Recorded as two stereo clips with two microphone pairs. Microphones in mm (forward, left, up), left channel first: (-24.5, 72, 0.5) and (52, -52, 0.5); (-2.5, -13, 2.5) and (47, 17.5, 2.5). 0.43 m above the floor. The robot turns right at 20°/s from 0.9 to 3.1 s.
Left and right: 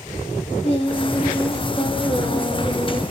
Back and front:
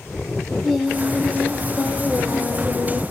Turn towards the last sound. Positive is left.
turn(degrees=165)